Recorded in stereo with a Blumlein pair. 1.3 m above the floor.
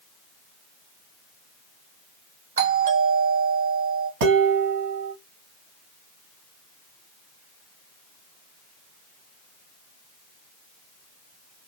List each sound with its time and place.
2.6 s a doorbell: 65° right, 1.0 m
4.2 s dishes clattering: 50° right, 1.1 m